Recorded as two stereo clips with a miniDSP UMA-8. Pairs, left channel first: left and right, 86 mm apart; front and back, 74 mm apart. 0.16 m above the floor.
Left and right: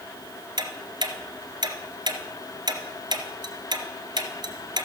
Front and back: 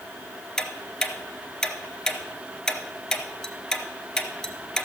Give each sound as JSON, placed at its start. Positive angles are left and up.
{"t": 0.6, "sound": "ticking", "azimuth_deg": -80, "distance_m": 1.0}